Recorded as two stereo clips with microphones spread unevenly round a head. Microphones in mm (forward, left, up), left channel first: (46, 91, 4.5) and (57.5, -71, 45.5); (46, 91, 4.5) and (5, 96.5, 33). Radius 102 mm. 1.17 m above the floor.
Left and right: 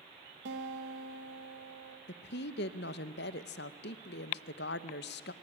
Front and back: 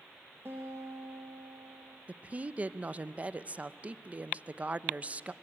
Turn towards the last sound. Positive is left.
turn(degrees=115)